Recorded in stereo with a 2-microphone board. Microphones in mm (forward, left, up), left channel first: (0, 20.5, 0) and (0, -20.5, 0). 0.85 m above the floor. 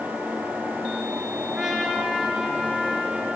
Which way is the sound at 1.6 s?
10° right (ahead or behind).